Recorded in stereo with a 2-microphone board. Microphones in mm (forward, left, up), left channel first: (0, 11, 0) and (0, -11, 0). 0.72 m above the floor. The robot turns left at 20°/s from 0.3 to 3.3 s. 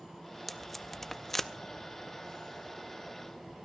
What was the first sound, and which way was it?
Tape being pulled, 10° left (ahead or behind).